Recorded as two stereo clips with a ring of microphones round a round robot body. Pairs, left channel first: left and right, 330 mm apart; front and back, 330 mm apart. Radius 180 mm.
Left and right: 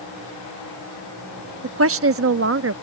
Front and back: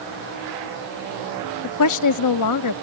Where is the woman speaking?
40° right.